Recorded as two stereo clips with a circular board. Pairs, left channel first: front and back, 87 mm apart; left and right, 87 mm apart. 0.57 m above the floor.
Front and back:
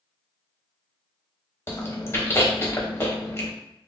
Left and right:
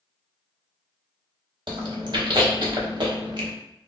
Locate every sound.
1.7 s chewing: 60° right, 0.7 m